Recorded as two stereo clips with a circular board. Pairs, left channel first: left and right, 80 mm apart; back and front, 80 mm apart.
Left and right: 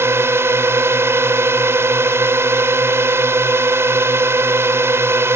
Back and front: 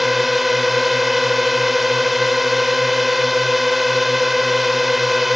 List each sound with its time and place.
0.0 s a drone: 85° right